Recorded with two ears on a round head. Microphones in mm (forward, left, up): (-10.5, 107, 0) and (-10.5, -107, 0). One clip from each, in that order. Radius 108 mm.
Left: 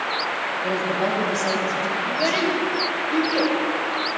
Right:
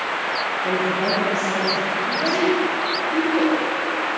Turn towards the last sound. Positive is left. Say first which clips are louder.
# right 1 dB
turn(degrees=75)  # may be behind; listen again after turning